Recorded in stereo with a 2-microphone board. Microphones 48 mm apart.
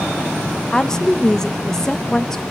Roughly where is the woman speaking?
Centre.